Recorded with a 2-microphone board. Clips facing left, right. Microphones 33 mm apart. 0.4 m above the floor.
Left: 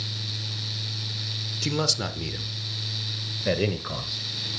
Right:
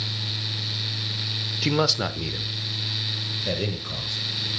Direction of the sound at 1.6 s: 30° right (ahead or behind).